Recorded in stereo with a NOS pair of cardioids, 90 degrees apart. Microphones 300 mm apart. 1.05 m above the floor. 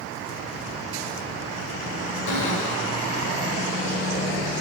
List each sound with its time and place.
2.3 s a cupboard door: 70° left, 2 m